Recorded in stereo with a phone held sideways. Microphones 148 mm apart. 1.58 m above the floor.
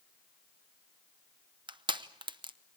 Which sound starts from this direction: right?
Crushing, at 1.7 s.